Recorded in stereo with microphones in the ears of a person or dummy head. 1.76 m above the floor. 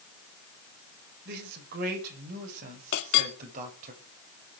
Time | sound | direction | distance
1.2 | a man speaking | 45° right (ahead or behind) | 7 m
2.9 | a clink | 60° left (ahead or behind) | 1.9 m